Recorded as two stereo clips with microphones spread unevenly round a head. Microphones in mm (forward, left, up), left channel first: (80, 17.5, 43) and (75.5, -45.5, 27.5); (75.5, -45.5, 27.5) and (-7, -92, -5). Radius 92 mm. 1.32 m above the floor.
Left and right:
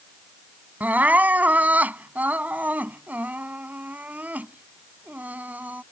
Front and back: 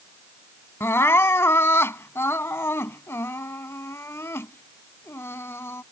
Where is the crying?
25° right.